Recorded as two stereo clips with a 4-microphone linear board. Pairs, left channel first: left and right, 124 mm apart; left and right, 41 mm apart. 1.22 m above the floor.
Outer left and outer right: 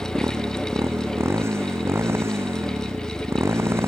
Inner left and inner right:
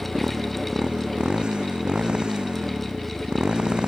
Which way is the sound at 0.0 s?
20° right (ahead or behind).